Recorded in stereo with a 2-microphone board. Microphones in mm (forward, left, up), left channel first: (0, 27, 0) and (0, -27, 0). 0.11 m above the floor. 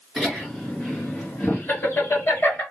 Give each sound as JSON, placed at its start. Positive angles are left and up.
{"t": 0.2, "sound": "laughter", "side_deg": 10, "distance_m": 1.3}